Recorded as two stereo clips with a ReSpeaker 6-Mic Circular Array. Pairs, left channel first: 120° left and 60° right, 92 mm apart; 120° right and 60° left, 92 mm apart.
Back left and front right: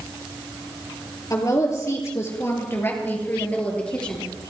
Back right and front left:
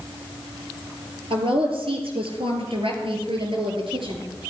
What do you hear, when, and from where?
1.3 s a woman speaking: 70° left, 3.5 m; by 4.3 s 40° left, 3.5 m